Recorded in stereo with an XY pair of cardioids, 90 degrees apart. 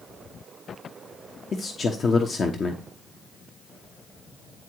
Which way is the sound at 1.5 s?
45° left.